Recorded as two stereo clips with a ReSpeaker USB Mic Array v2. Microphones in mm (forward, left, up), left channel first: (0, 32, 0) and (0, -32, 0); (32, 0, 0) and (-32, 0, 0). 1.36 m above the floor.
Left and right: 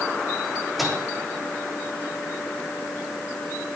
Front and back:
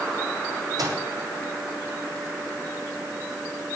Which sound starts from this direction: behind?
A microwave, at 0.8 s.